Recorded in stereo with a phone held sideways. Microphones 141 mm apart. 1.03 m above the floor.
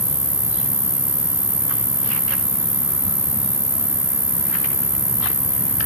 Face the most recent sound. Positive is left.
turn(degrees=50)  # may be behind; listen again after turning